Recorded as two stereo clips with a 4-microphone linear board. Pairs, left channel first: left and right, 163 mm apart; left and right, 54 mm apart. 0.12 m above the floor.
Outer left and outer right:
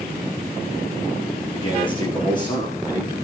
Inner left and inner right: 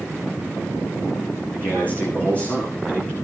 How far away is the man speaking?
About 6.5 m.